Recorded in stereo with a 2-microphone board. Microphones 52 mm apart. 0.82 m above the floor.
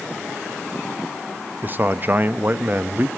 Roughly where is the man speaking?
Right.